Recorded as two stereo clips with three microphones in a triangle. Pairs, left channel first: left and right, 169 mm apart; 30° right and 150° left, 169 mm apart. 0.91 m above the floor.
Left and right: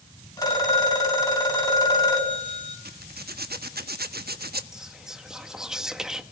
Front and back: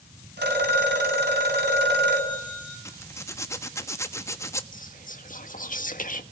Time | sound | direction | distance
0.4 | a phone ringing | 160° left | 5 m
2.9 | a zipper | 105° right | 1.2 m
4.7 | whispering | 5° right | 1.5 m